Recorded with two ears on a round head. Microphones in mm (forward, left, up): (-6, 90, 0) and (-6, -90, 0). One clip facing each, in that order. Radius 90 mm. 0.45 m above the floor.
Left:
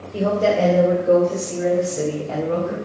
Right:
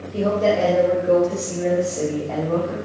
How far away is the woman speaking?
About 2 m.